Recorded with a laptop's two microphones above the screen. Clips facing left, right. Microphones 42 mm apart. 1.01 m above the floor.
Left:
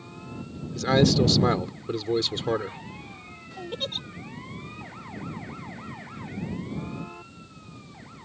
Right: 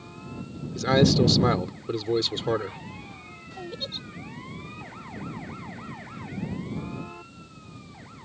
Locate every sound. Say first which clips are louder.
0.8 s a man speaking: even; centre (ahead or behind)
3.7 s a giggle: left 6 dB; 65° left (ahead or behind)